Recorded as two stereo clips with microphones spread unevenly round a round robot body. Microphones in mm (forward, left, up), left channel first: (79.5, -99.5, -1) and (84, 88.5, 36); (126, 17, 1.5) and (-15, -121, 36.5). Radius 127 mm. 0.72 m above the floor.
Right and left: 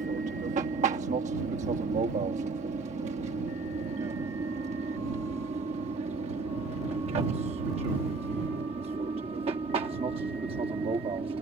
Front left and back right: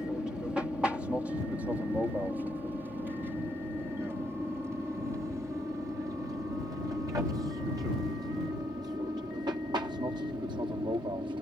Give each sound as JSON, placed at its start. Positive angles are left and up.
{"t": 0.0, "sound": "an aircraft", "azimuth_deg": 125}